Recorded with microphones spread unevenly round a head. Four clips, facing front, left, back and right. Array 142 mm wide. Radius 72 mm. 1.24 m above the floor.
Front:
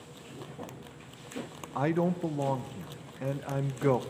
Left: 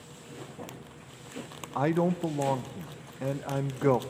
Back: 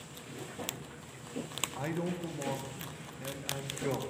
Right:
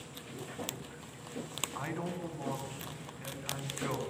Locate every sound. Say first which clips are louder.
1.8 s a man speaking: left 13 dB, front 8 dB; 60° left, 1.1 m